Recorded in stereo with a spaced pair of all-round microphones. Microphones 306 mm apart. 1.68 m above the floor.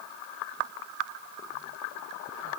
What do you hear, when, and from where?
Only background noise.